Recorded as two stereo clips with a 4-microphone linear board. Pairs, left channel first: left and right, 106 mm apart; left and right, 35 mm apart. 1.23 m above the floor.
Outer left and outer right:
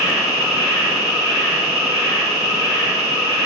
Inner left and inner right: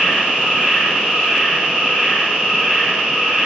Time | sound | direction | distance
0.0 | an insect | 25° right (ahead or behind) | 1.5 m